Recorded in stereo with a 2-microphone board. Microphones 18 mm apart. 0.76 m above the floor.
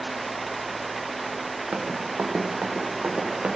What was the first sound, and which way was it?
Running footsteps, 75° right (ahead or behind).